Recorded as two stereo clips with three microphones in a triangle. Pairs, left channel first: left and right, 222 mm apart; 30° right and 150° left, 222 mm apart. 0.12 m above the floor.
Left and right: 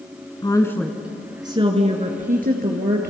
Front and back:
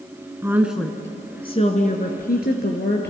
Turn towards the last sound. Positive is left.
turn(degrees=-60)